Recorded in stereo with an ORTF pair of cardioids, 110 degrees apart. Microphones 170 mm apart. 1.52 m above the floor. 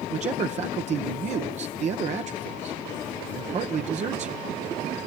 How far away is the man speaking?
About 1.0 m.